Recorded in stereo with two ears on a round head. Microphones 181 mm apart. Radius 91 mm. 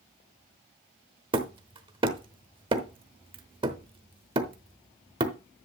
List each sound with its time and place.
1.3 s hammering: 25° right (ahead or behind), 0.9 m